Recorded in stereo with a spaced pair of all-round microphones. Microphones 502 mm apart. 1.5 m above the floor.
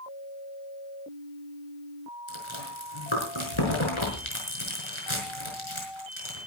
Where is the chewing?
70° left (ahead or behind), 5.5 m.